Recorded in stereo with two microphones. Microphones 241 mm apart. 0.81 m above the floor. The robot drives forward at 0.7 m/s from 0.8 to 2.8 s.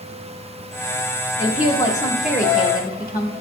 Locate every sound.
1.4 s a woman speaking: 20° left (ahead or behind), 1.6 m; by 3.3 s 35° left (ahead or behind), 1.1 m